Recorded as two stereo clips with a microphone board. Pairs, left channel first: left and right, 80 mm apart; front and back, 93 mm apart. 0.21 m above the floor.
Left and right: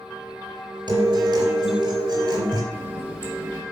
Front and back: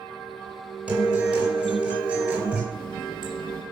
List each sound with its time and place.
0.9 s a guitar: 105° right, 4 m
2.7 s a running tap: 25° right, 4 m